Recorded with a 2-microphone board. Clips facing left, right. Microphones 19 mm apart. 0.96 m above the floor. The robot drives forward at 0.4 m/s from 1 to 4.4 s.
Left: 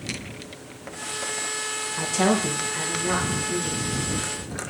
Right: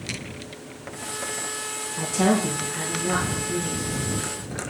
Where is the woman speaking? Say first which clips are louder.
Right 1 dB; 25° left (ahead or behind), 0.6 m; by 3.9 s 15° left (ahead or behind), 1.1 m.